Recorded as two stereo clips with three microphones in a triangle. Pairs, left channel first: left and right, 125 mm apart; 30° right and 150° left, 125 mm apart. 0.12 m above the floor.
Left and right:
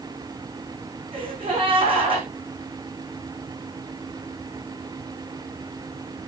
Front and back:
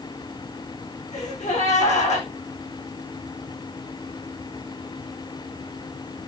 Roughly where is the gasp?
Ahead right.